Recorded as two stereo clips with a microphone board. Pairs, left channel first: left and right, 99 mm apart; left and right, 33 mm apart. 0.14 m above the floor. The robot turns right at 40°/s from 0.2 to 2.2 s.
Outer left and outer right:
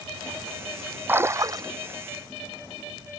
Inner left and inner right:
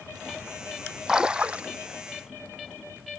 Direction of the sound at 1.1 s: 20° right (ahead or behind).